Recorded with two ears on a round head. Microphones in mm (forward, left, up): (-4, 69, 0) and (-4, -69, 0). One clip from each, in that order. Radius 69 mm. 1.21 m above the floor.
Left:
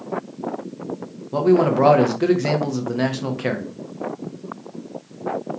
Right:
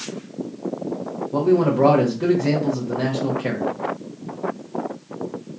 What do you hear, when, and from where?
1.3 s a man speaking: 40° left (ahead or behind), 0.6 m